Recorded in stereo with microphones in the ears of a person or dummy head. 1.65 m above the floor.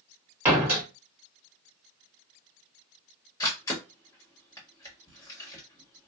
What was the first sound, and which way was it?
A door slam, 15° right (ahead or behind).